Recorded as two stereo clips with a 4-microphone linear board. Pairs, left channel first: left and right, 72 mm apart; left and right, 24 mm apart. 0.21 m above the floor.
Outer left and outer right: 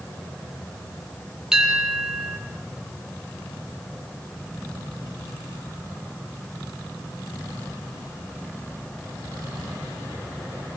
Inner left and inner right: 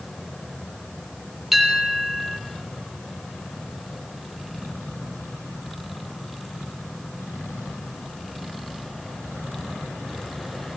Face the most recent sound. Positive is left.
turn(degrees=-5)  # may be behind; listen again after turning